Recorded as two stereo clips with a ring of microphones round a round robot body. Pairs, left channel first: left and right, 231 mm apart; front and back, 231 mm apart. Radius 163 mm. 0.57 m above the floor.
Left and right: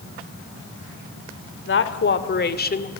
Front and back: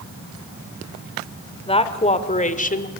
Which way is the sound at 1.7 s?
65° left.